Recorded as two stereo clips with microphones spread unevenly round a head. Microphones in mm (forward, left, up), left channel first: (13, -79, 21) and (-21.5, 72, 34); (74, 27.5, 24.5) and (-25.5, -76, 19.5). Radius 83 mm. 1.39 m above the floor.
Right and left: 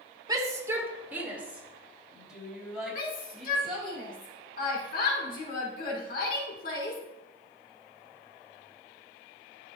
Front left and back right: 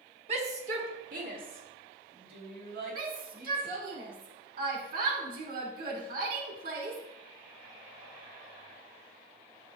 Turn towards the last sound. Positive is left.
turn(degrees=-110)